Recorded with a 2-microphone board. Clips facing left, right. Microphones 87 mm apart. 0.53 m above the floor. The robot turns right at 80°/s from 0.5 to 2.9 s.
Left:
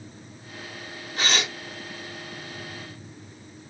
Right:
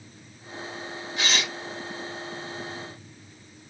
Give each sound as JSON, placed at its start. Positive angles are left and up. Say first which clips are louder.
{"t": 1.2, "sound": "tearing paper", "louder": "left 2 dB", "azimuth_deg": 40, "distance_m": 1.4}